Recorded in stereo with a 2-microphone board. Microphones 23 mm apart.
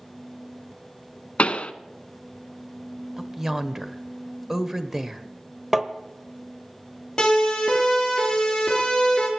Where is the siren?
35° left (ahead or behind), 7.5 m; by 9.3 s 40° left (ahead or behind), 4.5 m.